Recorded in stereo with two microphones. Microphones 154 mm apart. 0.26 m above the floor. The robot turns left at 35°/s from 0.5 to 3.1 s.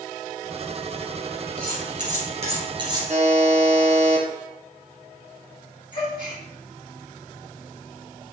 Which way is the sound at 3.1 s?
50° right (ahead or behind).